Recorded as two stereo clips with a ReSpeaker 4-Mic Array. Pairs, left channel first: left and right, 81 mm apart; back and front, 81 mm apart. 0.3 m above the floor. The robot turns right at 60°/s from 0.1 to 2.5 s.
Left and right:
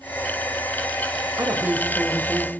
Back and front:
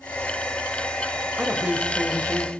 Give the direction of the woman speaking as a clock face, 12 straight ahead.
2 o'clock.